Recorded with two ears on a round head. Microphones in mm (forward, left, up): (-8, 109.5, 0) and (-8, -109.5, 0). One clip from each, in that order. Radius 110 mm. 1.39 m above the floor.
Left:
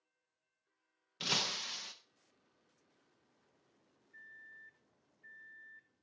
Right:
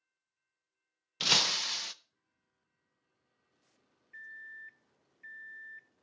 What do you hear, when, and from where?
1.2 s breaking glass: 30° right (ahead or behind), 0.5 m
4.1 s a microwave: 85° right, 0.6 m